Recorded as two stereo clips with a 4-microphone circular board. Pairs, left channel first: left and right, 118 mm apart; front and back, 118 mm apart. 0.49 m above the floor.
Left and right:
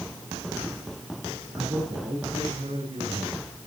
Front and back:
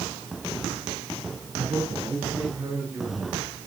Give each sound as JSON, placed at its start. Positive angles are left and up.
{"t": 1.5, "sound": "a man speaking", "azimuth_deg": -120, "distance_m": 7.5}